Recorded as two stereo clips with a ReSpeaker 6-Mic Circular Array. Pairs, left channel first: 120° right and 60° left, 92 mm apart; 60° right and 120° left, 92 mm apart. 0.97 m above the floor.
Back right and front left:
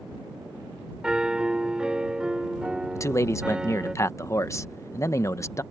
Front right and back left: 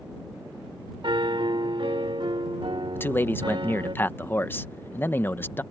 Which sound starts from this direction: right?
A man speaking, at 3.0 s.